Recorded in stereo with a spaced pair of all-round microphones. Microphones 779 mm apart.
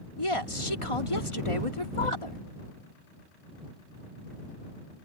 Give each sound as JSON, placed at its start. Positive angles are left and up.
{"t": 0.2, "sound": "a woman speaking", "side_deg": 35}